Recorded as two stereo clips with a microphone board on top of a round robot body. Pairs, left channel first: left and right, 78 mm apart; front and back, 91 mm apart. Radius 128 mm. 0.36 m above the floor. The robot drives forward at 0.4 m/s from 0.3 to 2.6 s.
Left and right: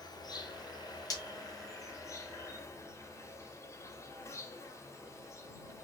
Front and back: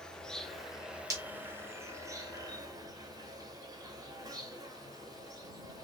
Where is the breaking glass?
130° left, 1.9 m.